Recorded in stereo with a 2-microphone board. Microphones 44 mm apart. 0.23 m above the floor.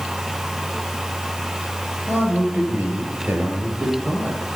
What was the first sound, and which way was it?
A man speaking, 60° right (ahead or behind).